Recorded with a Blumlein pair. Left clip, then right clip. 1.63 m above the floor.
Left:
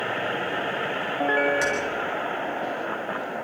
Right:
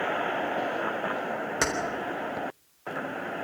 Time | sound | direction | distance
1.6 | keys jangling | 70° right | 4 m